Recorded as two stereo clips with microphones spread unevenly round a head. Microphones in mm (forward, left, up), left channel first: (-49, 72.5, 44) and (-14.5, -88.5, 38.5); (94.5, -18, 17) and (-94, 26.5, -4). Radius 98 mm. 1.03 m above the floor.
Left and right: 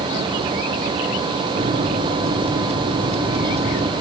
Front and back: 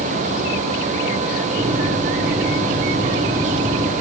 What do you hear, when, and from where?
1.6 s a microwave: 125° right, 2.5 m